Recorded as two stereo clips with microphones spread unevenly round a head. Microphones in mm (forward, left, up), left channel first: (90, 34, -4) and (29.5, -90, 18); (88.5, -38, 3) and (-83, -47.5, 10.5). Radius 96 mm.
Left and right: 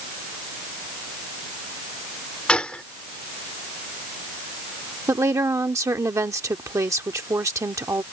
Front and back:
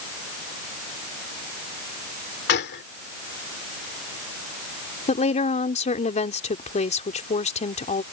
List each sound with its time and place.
2.5 s a gunshot: 20° right
5.1 s a woman speaking: 45° right